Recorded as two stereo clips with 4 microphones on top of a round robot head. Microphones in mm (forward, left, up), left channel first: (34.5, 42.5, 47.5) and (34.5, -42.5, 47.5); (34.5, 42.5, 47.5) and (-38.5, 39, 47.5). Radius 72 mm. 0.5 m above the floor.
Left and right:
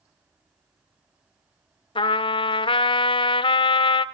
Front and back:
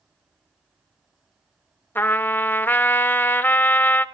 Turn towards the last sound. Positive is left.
turn(degrees=70)